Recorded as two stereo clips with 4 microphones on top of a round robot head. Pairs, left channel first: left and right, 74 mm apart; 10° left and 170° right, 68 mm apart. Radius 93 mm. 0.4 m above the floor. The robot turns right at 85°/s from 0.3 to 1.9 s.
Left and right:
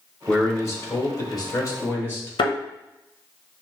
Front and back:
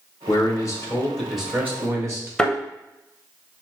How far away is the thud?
About 0.8 m.